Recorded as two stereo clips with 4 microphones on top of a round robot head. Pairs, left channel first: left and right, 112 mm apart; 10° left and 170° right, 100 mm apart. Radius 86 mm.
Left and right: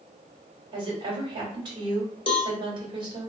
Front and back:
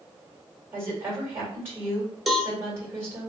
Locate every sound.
0.7 s a woman speaking: 110° right, 1.9 m
2.3 s a cowbell: 100° left, 0.9 m